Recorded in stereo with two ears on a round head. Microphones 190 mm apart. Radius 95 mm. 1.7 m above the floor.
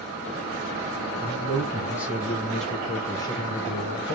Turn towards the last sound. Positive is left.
turn(degrees=50)  # may be behind; listen again after turning